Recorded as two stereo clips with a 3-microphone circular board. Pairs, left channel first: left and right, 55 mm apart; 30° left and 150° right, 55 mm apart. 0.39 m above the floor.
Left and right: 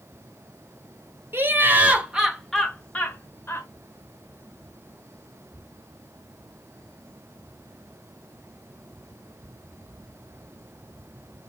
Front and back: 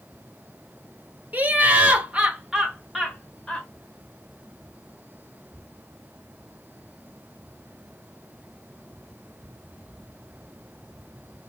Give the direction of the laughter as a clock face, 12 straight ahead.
3 o'clock.